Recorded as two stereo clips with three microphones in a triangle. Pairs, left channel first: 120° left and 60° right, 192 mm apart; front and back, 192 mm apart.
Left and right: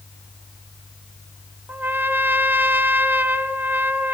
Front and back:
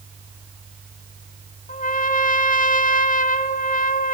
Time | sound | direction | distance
1.7 | a trumpet | 15° left | 0.7 m